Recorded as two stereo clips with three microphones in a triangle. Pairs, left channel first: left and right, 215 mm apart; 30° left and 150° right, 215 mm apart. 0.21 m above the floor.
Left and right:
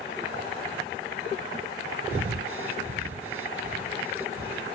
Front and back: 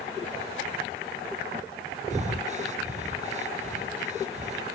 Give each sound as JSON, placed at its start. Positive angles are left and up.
{"t": 2.1, "sound": "breathing", "azimuth_deg": -95, "distance_m": 0.9}